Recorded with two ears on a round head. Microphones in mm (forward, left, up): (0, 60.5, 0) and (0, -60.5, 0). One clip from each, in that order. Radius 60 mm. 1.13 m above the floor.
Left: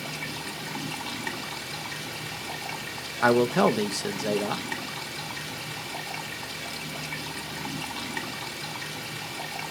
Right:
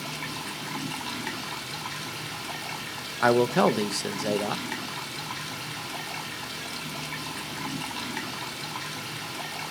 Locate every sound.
0.0 s running water: 5° right (ahead or behind), 2.5 m
3.2 s a man speaking: 10° right (ahead or behind), 0.8 m